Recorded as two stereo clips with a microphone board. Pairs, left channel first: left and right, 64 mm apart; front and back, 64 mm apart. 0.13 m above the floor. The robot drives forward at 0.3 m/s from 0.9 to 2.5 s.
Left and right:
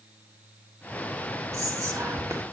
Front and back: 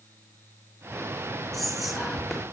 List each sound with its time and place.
1.5 s whispering: 90° right, 2 m; by 2.4 s 95° right, 2 m